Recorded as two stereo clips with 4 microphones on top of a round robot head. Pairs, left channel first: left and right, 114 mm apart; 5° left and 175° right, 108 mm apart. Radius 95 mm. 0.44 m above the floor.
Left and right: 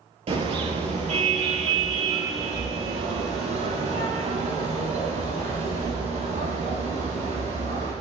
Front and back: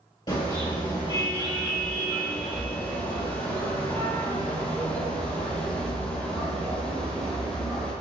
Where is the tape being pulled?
I don't hear tape being pulled.